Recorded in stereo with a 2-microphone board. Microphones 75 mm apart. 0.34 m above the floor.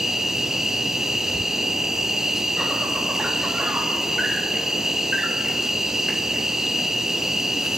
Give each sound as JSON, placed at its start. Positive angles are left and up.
{"t": 0.0, "sound": "an insect", "side_deg": -5, "distance_m": 1.5}